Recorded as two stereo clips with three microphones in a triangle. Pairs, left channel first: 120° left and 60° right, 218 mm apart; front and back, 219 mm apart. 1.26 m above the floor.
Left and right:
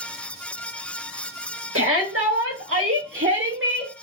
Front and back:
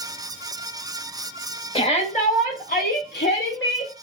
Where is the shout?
65° right, 1.6 m; by 3.9 s 25° right, 1.6 m.